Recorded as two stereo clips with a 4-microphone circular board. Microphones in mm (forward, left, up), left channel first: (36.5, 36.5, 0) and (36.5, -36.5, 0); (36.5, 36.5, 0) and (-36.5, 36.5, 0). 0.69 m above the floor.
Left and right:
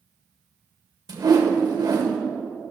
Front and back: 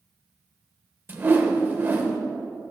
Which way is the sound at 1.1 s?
120° right.